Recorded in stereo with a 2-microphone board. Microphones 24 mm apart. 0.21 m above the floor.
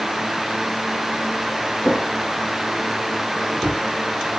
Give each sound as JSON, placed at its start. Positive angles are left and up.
{"t": 1.8, "sound": "a drawer", "side_deg": -15, "distance_m": 4.5}